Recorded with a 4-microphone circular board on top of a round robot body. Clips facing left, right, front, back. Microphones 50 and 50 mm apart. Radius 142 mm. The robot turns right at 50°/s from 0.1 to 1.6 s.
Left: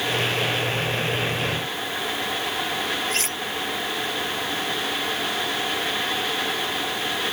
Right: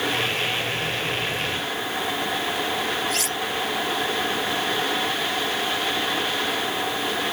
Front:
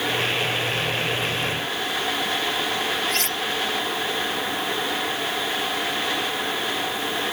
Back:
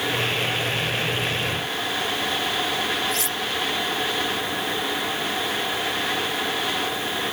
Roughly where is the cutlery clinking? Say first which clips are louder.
Right 1 dB, front 1 dB; ahead left.